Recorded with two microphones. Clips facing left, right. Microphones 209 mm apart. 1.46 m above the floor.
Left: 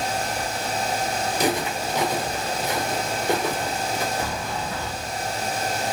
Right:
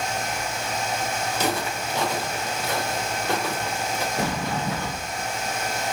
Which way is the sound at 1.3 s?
15° left (ahead or behind).